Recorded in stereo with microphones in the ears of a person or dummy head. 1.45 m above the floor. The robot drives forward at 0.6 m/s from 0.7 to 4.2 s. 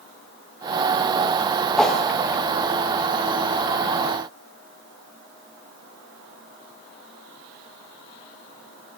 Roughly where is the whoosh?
Centre.